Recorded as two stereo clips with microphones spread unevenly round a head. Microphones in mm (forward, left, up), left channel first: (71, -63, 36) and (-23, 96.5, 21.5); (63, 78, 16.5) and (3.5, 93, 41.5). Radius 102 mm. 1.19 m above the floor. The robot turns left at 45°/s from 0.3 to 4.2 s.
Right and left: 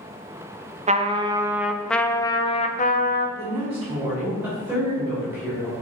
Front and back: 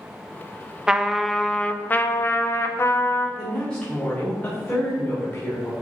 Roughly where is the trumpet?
Left.